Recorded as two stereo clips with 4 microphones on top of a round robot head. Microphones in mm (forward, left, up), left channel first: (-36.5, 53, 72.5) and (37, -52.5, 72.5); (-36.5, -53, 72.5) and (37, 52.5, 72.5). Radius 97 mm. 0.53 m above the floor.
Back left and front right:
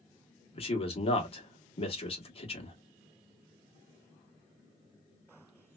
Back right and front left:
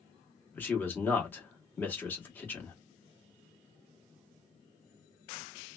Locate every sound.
0.5 s a man speaking: 160° left, 1.3 m